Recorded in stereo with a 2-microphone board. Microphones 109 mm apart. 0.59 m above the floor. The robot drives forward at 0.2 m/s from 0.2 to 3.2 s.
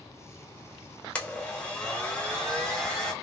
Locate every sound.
1.1 s a blender: 10° left (ahead or behind), 0.7 m; by 3.1 s 5° left (ahead or behind), 1.1 m